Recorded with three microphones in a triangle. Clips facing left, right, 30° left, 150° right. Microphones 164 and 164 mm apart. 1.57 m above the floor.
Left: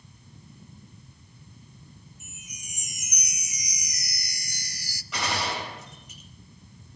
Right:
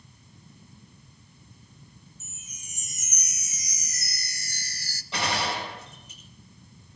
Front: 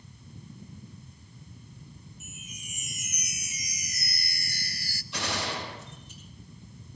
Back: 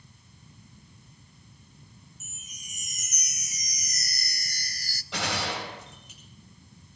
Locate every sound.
2.2 s a chime: 165° left, 0.7 m
5.1 s a gunshot: 155° right, 9 m